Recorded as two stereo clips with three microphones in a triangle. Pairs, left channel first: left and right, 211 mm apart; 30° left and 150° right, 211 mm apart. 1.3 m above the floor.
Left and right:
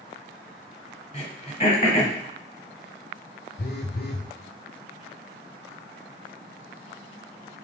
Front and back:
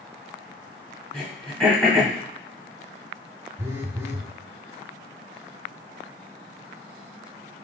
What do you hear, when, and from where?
1.1 s throat clearing: 115° left, 1.6 m
3.6 s a phone buzzing: 135° left, 0.6 m